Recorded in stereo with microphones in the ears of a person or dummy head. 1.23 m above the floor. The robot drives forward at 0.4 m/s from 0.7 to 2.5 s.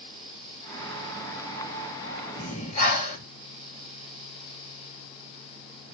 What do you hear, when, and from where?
2.4 s breathing: 45° left (ahead or behind), 1.2 m